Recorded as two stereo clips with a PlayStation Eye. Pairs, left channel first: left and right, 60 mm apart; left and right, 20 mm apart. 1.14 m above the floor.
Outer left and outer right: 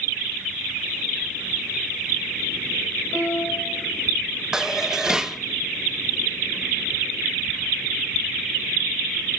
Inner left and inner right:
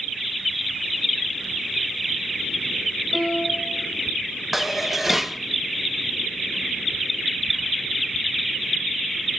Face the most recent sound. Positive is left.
turn(degrees=-10)  # may be behind; listen again after turning